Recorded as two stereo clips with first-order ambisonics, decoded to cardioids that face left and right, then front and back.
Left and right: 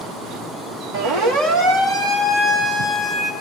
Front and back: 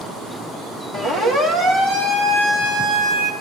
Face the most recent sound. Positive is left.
turn(degrees=-170)